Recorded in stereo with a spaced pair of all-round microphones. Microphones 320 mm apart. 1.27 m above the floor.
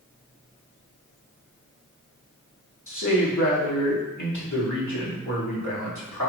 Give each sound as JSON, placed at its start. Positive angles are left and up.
{"t": 2.9, "sound": "a man speaking", "side_deg": 75, "distance_m": 2.5}